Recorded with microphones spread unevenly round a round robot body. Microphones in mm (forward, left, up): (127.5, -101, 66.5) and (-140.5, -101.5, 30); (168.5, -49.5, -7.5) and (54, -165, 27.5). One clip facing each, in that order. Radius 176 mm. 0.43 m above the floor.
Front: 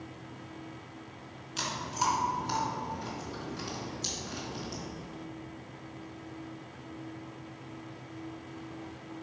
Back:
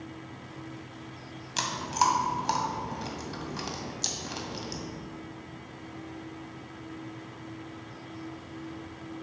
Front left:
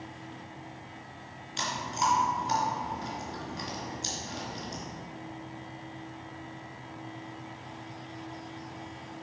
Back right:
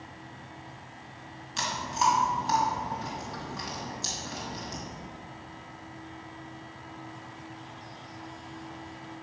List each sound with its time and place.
1.6 s chewing: 175° right, 1.9 m